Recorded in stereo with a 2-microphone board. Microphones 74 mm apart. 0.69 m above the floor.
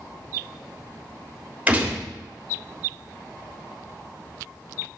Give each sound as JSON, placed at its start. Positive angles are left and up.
{"t": 1.7, "sound": "a gunshot", "side_deg": -20, "distance_m": 3.0}